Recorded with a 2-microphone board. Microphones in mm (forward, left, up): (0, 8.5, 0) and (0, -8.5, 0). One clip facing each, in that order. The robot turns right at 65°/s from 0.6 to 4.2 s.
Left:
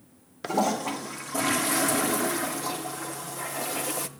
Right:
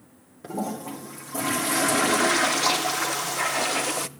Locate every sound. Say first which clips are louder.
0.4 s a toilet flushing: left 5 dB; 115° left, 0.7 m; by 4.1 s 20° right, 0.7 m